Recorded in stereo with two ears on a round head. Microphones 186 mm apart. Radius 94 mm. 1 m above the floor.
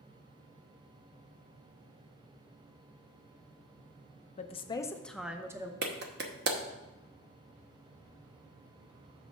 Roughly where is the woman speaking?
Left.